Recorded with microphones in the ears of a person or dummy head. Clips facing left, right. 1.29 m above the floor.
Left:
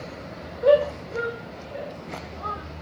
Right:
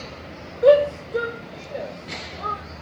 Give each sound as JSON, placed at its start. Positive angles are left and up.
{"t": 0.6, "sound": "a shout", "side_deg": -50, "distance_m": 6.5}